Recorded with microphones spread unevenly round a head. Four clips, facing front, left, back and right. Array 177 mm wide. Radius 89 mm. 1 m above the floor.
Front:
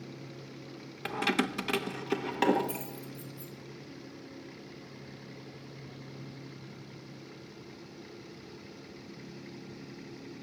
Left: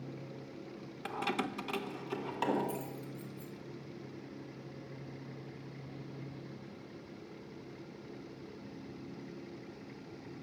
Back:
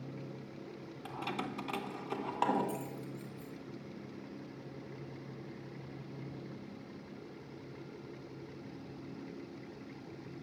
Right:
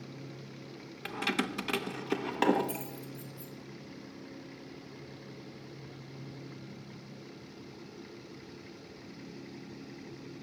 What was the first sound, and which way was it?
Keys jangling, 5° right.